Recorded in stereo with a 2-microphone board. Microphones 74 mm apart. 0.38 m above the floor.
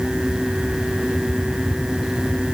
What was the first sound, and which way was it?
Only background noise.